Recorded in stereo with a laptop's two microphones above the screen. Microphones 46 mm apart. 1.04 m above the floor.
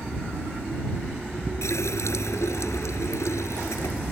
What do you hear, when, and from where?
1.6 s a running tap: 80° left